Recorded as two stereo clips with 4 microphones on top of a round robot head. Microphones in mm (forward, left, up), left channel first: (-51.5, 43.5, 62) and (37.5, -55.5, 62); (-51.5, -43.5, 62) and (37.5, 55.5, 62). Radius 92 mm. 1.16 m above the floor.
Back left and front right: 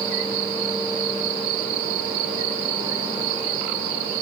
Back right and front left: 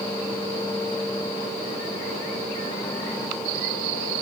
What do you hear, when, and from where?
Only background noise.